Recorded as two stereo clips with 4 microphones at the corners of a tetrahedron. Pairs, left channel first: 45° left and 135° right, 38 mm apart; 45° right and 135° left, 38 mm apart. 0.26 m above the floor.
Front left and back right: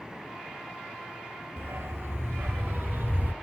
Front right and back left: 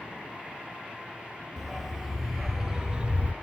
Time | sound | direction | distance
1.6 | a dog barking | 135° right | 1.7 m